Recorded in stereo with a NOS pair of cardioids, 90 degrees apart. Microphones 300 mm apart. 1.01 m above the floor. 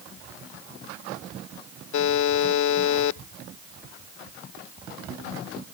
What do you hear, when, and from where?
1.9 s a buzzer: 70° left